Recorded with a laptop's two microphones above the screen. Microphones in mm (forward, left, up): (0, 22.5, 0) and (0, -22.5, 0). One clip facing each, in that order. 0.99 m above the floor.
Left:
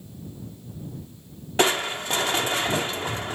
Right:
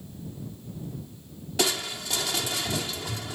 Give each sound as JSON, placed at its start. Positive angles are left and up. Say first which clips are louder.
{"t": 1.6, "sound": "crushing", "louder": "left 6 dB", "side_deg": 40}